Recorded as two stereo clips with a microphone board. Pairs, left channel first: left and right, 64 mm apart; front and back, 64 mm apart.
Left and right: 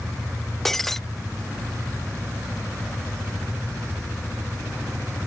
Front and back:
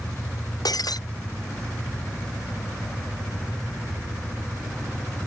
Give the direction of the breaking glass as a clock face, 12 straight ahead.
12 o'clock.